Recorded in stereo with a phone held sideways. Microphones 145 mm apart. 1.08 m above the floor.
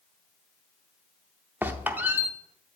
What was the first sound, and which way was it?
A squeak, 10° right (ahead or behind).